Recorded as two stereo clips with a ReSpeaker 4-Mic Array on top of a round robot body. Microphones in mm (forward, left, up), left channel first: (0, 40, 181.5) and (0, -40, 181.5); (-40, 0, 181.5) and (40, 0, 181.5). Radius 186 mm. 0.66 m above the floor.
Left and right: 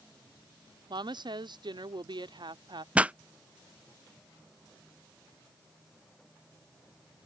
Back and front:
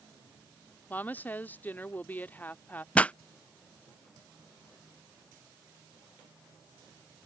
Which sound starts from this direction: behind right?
A pop, at 3.0 s.